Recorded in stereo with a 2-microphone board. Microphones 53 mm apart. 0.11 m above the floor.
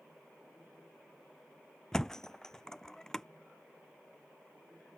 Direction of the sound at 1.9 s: 10° left (ahead or behind).